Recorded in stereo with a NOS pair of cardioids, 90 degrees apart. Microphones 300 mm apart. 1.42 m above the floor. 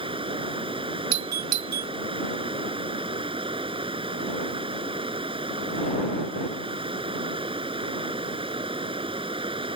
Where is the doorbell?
65° right.